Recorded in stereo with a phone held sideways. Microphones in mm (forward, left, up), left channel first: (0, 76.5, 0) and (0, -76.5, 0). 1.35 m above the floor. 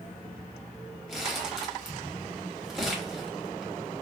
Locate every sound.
1.1 s crumpling: centre (ahead or behind), 1.2 m